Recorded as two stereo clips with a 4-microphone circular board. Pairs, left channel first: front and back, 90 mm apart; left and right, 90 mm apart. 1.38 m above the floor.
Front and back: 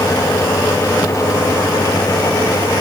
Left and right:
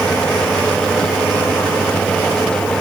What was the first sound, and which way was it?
Only background noise.